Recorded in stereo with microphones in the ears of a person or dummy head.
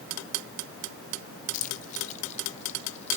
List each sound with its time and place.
1.5 s keys jangling: 45° left (ahead or behind), 0.8 m; by 3.2 s 35° left (ahead or behind), 2.5 m